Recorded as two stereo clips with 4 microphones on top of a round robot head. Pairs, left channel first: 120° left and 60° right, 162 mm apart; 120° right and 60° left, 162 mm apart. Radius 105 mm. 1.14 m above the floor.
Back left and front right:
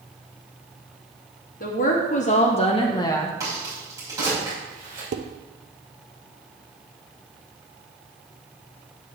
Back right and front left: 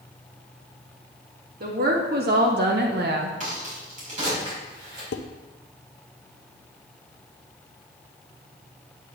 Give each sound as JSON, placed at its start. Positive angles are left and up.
{"t": 1.6, "sound": "a woman speaking", "azimuth_deg": 90, "distance_m": 2.5}
{"t": 3.4, "sound": "a crack", "azimuth_deg": 15, "distance_m": 5.0}
{"t": 5.1, "sound": "dishes clattering", "azimuth_deg": -95, "distance_m": 0.7}